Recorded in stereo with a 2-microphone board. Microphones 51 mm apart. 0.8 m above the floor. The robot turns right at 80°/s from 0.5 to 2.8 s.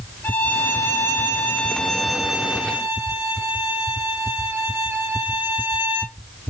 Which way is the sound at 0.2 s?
50° left.